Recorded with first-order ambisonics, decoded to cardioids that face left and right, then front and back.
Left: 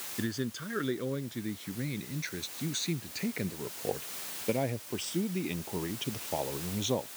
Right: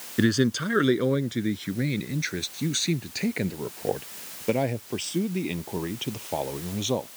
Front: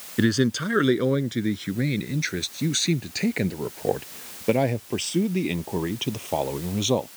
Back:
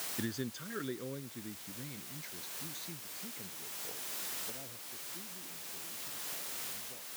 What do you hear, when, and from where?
0.2 s a man speaking: 40° right; by 7.1 s 15° right